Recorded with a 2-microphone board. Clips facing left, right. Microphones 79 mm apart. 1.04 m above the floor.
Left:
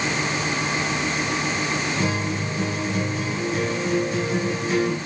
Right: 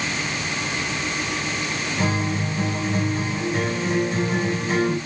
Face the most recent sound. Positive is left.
turn(degrees=-40)  # may be behind; listen again after turning